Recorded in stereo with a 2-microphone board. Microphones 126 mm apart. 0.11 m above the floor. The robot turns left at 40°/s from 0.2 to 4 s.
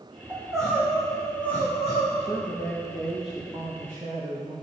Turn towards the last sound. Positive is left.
turn(degrees=-25)